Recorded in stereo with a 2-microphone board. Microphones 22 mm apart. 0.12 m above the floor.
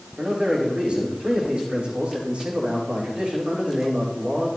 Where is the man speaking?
65° right (ahead or behind), 6.5 m.